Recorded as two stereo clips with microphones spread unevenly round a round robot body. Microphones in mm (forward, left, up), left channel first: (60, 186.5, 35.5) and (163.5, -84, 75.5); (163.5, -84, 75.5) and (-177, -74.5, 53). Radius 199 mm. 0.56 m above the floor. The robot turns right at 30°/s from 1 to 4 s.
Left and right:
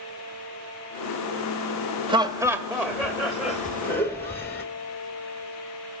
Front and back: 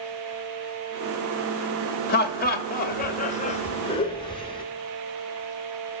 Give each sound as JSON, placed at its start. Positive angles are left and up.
{"t": 2.1, "sound": "laughter", "azimuth_deg": 5, "distance_m": 0.8}